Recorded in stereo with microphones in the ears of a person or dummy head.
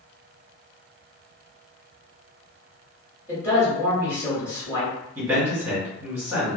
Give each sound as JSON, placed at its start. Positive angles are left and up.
{"t": 3.3, "sound": "a man speaking", "side_deg": -5, "distance_m": 1.2}
{"t": 5.2, "sound": "a man speaking", "side_deg": -10, "distance_m": 1.5}